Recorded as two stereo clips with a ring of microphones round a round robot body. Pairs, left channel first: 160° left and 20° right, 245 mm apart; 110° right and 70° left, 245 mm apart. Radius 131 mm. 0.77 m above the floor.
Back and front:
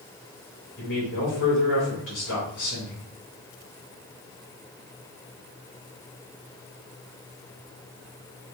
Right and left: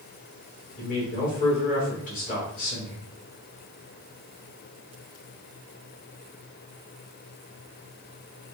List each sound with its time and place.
0.8 s a man speaking: 170° right, 2 m